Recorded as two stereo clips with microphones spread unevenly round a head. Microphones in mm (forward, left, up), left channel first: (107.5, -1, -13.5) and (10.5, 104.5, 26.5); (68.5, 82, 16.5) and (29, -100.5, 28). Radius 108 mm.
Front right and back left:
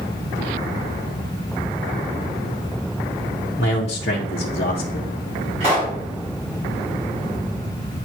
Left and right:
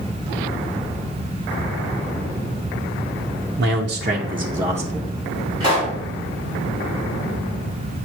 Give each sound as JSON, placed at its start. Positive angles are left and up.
{"t": 3.6, "sound": "a man speaking", "azimuth_deg": -95, "distance_m": 0.8}
{"t": 5.6, "sound": "a pop", "azimuth_deg": -170, "distance_m": 4.5}